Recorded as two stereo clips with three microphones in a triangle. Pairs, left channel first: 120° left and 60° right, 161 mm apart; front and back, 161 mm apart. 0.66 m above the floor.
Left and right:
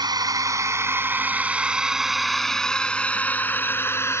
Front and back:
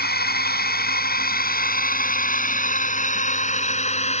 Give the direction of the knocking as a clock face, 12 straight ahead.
No knocking in this recording.